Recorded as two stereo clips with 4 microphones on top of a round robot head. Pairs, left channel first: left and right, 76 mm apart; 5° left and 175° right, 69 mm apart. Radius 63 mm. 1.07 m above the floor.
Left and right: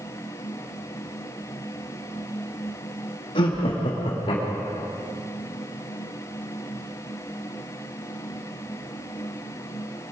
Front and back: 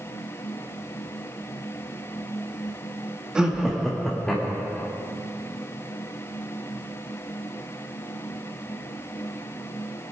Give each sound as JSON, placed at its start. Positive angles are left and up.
{"t": 3.4, "sound": "laughter", "azimuth_deg": 105, "distance_m": 1.7}